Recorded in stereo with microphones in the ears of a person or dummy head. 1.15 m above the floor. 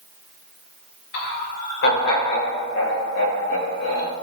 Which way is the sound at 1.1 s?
65° left (ahead or behind).